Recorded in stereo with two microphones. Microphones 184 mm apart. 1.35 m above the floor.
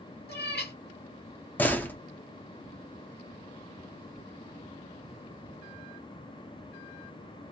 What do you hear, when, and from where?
0.3 s a cat meowing: 60° left (ahead or behind), 1.2 m
1.6 s a door slam: 10° left (ahead or behind), 0.5 m